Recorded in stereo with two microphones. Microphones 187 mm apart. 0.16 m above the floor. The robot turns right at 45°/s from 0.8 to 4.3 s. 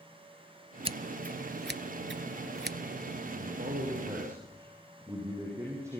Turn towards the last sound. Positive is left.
turn(degrees=-15)